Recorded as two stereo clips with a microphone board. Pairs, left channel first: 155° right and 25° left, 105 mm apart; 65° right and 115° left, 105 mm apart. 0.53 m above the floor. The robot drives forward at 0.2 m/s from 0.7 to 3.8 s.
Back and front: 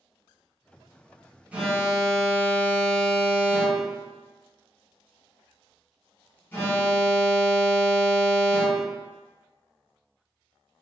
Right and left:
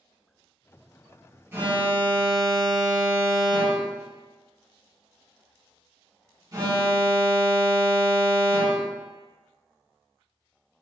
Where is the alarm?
80° left, 0.6 m; by 9.0 s 145° left, 0.7 m.